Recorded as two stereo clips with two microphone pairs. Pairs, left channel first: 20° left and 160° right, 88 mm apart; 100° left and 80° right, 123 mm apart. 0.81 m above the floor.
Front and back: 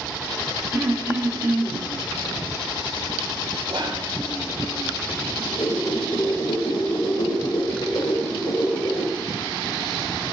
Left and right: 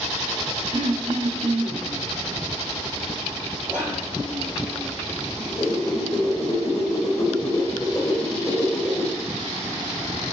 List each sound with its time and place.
0.7 s throat clearing: 100° right, 1.9 m
3.7 s whispering: 155° right, 1.6 m
5.4 s a whoosh: 35° left, 3 m